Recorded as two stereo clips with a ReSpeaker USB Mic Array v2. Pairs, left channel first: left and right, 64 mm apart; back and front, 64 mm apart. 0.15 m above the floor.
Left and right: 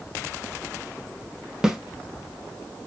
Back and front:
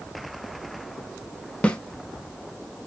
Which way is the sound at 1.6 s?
155° right.